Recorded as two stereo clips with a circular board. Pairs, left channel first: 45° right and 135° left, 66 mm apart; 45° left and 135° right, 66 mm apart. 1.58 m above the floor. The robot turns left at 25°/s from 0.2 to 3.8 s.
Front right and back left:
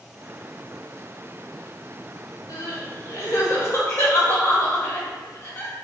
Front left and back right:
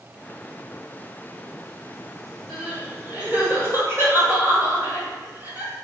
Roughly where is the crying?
Ahead right.